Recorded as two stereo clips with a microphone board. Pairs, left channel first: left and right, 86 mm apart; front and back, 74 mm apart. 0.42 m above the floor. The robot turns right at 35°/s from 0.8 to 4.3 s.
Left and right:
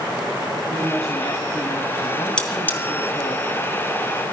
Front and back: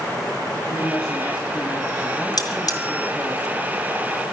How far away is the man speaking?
About 2.5 m.